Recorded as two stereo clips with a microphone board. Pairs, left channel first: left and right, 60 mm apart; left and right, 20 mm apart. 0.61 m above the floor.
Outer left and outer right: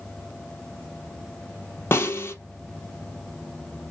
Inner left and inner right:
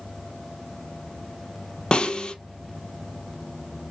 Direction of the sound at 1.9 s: 40° left (ahead or behind).